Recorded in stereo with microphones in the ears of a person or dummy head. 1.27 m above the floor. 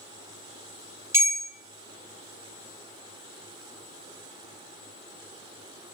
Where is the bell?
15° right (ahead or behind), 0.5 m.